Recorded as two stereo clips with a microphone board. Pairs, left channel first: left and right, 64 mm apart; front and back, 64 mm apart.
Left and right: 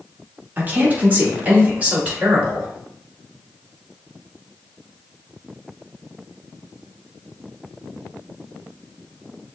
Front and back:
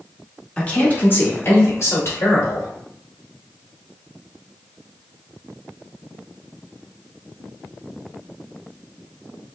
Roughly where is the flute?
I don't hear a flute.